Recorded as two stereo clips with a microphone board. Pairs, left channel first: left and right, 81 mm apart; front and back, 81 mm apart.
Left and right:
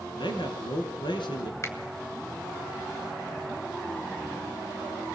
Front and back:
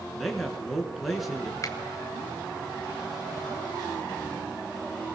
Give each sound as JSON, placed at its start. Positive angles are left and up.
{"t": 0.2, "sound": "a man speaking", "azimuth_deg": 90, "distance_m": 4.0}
{"t": 1.6, "sound": "a finger snap", "azimuth_deg": 40, "distance_m": 2.5}